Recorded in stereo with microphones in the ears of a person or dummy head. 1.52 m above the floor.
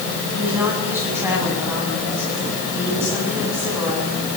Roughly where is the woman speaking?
Centre.